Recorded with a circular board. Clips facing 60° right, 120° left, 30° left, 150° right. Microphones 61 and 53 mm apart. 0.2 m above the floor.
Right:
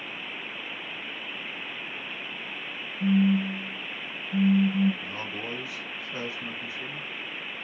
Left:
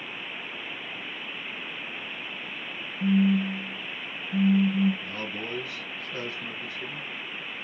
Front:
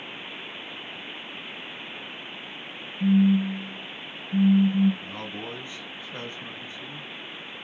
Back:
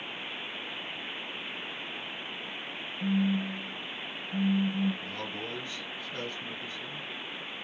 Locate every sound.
3.0 s a phone buzzing: 40° left, 0.6 m
5.0 s a man speaking: 5° right, 1.0 m